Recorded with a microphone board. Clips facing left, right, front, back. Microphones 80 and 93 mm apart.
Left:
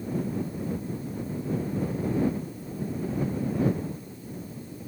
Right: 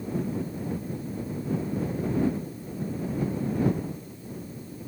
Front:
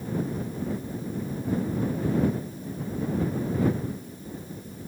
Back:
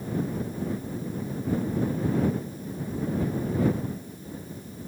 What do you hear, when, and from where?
Only background noise.